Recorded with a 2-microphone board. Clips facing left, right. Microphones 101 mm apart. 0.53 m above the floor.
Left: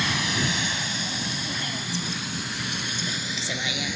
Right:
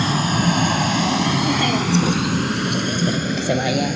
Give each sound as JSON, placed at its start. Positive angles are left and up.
{"t": 0.0, "sound": "a vehicle", "side_deg": -35}